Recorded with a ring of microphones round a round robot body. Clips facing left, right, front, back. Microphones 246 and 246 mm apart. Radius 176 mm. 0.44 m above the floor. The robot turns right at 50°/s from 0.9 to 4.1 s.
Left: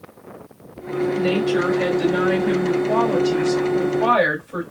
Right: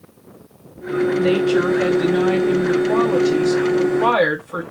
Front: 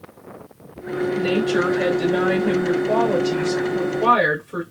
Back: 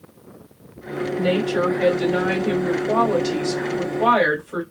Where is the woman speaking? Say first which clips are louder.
Right 3 dB, even; 45° left, 3 m; by 4.6 s 165° right, 3 m.